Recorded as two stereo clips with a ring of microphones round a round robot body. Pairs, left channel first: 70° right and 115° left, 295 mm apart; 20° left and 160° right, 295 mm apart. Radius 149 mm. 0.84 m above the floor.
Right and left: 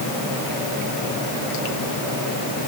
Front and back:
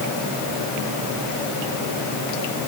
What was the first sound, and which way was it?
Only background noise.